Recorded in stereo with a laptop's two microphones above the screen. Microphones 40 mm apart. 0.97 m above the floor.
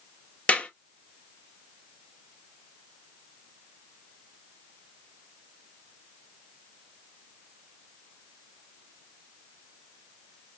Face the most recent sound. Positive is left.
turn(degrees=35)  # may be behind; listen again after turning